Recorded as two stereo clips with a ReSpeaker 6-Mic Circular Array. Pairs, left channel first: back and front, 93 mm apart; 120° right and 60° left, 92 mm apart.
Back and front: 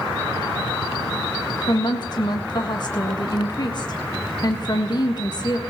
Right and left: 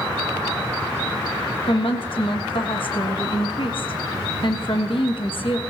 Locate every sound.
1.7 s a woman speaking: 140° right, 1.4 m